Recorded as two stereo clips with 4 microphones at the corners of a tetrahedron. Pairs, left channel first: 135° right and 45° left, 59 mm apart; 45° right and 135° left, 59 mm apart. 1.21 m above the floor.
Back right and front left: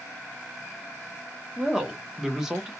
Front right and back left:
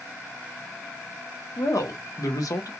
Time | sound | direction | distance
1.6 | a woman speaking | 35° right | 0.8 m